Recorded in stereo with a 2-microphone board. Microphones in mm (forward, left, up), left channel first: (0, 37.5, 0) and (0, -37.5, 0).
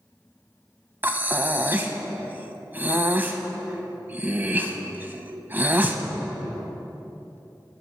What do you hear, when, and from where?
1.0 s breathing: 25° right (ahead or behind), 0.5 m